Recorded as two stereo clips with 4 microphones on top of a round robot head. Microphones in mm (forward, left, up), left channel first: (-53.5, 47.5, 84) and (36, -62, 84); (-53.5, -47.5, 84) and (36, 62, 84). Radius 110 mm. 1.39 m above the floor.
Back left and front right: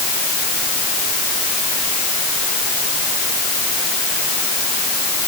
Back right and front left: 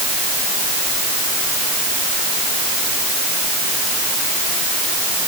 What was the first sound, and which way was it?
Only background noise.